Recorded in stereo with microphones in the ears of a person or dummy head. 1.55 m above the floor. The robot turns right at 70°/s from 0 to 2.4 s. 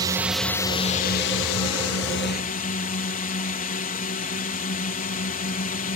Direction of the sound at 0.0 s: 30° right.